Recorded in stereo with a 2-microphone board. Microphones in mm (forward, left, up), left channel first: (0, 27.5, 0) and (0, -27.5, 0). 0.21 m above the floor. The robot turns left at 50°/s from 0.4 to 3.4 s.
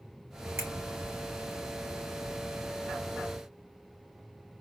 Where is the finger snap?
50° right (ahead or behind), 2.5 m; by 0.7 s 45° right (ahead or behind), 2.5 m.